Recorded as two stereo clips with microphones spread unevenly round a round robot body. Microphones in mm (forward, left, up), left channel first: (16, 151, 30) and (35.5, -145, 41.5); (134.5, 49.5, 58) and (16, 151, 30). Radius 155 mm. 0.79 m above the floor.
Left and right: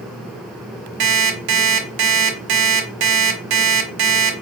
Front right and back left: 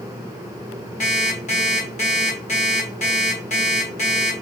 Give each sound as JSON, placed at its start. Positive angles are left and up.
{"t": 1.0, "sound": "an alarm clock", "azimuth_deg": -105, "distance_m": 1.5}